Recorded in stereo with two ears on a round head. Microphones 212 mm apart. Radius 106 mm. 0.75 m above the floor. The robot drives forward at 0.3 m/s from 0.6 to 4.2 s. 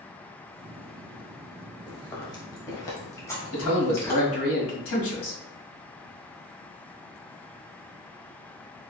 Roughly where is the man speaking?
Left.